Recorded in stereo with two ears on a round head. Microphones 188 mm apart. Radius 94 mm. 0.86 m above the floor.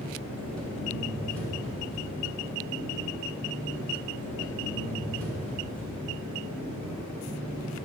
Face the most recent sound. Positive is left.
turn(degrees=5)  # may be behind; listen again after turning